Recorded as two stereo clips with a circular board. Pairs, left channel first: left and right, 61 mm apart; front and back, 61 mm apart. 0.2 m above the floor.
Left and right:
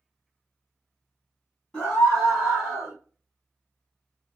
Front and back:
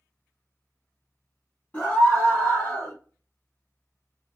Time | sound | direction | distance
1.7 | a scream | 35° left | 1.3 m